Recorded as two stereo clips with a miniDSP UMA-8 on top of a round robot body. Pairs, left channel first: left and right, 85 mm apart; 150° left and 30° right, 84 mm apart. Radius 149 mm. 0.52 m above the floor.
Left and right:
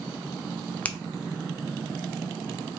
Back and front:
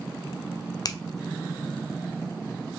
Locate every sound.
0.8 s a finger snap: 160° left, 0.7 m